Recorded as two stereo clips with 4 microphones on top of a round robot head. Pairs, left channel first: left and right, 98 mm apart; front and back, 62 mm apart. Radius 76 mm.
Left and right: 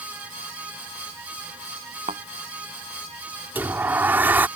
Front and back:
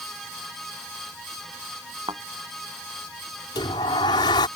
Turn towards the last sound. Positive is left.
turn(degrees=-20)